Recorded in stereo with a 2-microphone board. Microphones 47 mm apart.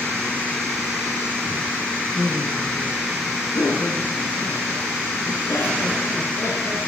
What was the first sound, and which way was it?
Laughter, 70° left (ahead or behind).